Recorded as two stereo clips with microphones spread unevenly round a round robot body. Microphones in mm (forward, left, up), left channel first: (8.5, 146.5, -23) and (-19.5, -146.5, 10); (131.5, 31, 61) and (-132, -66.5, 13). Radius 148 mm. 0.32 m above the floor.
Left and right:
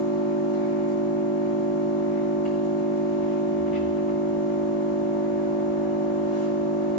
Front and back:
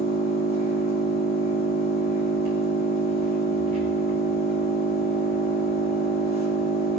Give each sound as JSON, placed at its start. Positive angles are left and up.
{"t": 0.0, "sound": "an engine running", "azimuth_deg": 130, "distance_m": 5.0}